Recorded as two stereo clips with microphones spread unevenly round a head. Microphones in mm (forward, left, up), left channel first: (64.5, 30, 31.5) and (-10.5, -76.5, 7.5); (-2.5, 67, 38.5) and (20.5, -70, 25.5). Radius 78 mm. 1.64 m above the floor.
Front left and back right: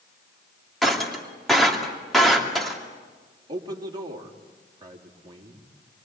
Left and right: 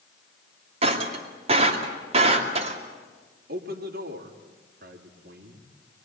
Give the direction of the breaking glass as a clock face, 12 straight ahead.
1 o'clock.